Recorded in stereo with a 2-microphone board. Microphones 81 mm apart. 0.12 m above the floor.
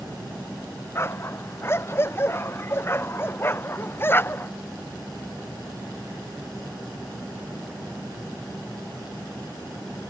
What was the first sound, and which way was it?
A dog barking, 35° left (ahead or behind).